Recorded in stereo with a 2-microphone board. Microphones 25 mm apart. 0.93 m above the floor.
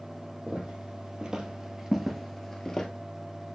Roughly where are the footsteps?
Right.